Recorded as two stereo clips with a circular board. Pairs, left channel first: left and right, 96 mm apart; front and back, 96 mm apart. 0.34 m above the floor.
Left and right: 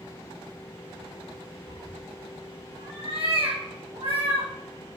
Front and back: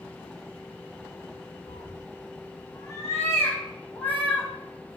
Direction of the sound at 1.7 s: 45° right.